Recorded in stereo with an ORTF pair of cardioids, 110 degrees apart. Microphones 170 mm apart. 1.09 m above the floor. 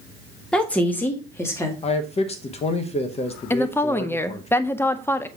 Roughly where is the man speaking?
Ahead left.